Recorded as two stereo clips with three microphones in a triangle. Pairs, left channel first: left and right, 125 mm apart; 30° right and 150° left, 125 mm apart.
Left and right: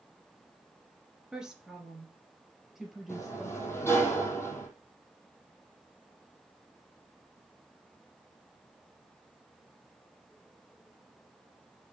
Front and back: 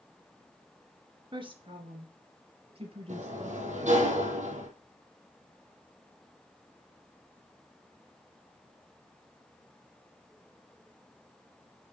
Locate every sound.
1.3 s a woman speaking: 175° right, 2.5 m; by 3.7 s straight behind, 4 m
3.1 s a sliding door: 160° left, 3.5 m